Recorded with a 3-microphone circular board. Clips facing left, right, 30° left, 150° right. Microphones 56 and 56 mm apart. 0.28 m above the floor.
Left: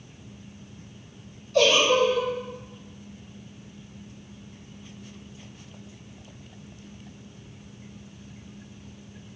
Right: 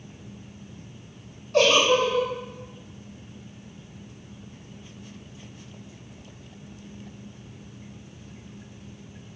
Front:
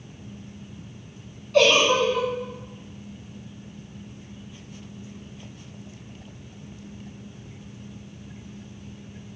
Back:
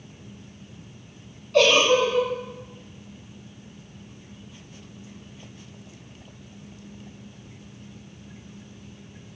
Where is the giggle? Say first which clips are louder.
Even, even; 55° right, 0.6 m.